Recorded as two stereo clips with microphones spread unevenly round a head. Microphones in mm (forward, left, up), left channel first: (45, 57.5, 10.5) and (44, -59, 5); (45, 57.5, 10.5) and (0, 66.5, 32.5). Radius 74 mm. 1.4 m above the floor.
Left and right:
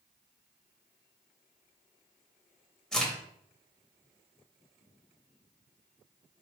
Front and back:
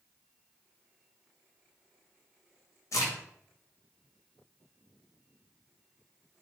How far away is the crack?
About 1.6 m.